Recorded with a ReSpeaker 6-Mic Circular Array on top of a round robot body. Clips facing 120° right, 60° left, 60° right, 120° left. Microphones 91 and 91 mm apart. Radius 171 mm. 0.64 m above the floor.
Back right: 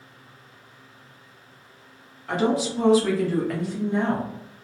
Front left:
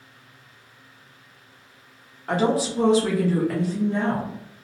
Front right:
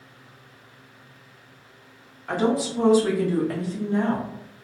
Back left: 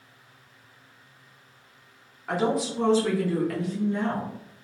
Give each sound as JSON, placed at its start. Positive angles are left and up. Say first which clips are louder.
{"t": 2.3, "sound": "a woman speaking", "louder": "front left 1 dB, front right 2 dB", "azimuth_deg": 35, "distance_m": 1.3}